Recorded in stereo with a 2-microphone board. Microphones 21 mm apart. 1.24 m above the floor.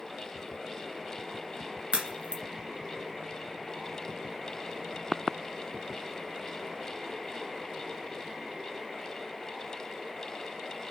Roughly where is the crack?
Right.